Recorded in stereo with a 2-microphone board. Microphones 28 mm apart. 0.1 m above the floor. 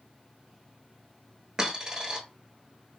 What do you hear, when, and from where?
1.6 s a dropped coin: 25° right (ahead or behind), 0.9 m